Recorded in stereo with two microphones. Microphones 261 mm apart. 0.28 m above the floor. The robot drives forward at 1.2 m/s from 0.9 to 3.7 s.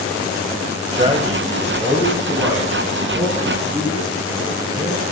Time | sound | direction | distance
0.9 | a man speaking | 20° right (ahead or behind) | 1.2 m